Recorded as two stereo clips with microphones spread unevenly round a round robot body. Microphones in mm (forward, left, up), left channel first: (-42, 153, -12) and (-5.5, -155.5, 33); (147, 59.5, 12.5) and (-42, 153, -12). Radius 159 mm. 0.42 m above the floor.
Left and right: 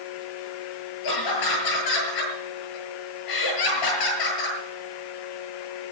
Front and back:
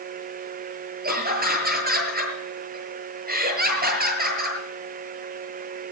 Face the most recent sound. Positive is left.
turn(degrees=110)